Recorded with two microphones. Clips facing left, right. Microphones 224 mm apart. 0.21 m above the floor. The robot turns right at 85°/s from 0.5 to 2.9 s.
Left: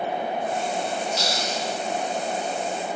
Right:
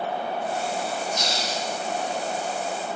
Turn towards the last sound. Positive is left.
turn(degrees=-15)